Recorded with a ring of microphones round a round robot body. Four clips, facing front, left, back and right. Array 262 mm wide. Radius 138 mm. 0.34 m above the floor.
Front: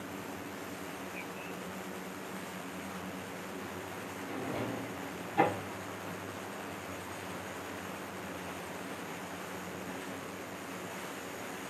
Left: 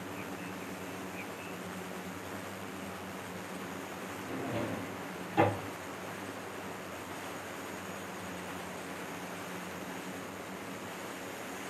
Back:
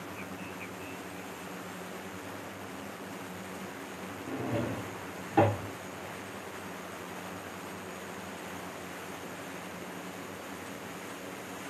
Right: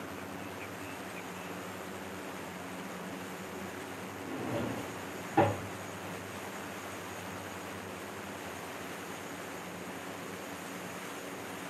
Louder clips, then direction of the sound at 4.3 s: Right 1 dB, back 4 dB; 165° right.